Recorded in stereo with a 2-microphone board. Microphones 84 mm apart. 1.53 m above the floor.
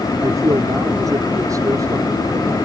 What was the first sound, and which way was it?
A man speaking, 45° right (ahead or behind).